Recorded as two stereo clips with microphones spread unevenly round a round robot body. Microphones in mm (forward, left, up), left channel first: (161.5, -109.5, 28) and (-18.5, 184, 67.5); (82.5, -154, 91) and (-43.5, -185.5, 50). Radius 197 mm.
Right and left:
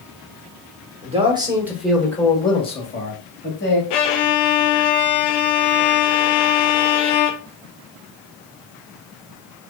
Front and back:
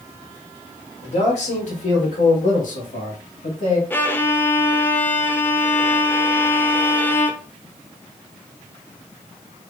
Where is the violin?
55° right, 0.7 m.